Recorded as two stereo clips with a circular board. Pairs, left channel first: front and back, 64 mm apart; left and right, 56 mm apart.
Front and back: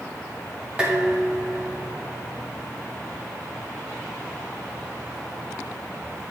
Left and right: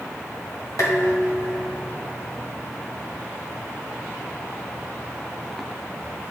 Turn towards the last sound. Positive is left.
turn(degrees=110)